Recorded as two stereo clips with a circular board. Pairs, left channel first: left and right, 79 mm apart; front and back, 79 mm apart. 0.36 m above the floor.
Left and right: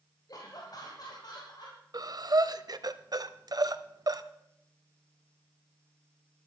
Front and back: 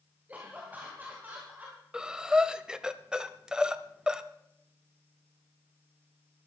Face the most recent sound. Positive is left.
turn(degrees=-100)